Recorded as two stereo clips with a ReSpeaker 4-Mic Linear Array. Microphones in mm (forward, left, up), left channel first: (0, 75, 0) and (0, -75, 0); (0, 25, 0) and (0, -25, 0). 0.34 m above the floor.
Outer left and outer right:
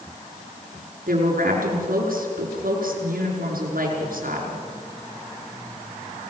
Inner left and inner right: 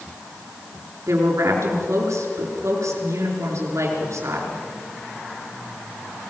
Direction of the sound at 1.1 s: 75° right (ahead or behind).